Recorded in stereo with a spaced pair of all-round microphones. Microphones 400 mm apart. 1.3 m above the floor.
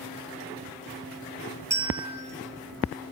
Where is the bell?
50° right (ahead or behind), 3.5 m.